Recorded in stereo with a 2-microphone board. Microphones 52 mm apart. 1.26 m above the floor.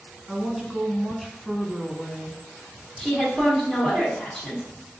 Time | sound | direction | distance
0.3 | a woman speaking | 5° left (ahead or behind) | 1.0 m
3.0 | a woman speaking | 10° left (ahead or behind) | 1.5 m